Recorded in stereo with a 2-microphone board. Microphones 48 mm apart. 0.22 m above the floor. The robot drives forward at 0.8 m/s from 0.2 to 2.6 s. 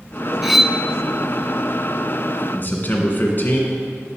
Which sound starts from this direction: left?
A man speaking, at 2.5 s.